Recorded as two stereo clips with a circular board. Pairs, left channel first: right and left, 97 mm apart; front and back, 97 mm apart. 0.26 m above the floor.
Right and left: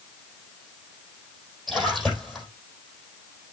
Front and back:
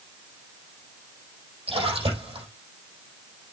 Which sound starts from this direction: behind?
A splash, at 1.7 s.